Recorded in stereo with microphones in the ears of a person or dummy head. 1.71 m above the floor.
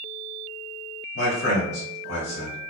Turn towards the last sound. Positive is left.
turn(degrees=70)  # may be behind; listen again after turning